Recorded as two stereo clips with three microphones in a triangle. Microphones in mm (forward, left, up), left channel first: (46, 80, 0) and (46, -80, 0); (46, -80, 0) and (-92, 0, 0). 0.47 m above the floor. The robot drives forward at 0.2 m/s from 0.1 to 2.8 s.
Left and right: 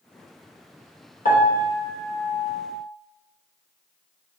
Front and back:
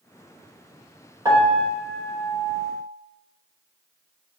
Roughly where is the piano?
Left.